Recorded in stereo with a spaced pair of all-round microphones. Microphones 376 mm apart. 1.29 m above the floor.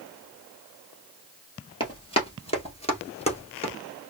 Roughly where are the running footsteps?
Centre.